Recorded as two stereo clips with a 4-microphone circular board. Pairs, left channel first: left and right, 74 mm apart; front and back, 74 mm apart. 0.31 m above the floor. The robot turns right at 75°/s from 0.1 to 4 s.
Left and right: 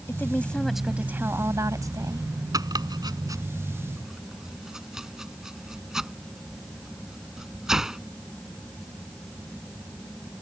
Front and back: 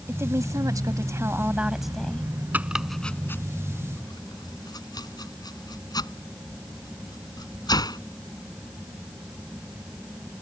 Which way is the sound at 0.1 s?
135° left.